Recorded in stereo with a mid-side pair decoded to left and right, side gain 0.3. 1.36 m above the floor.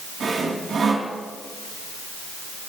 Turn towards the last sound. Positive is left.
turn(degrees=-70)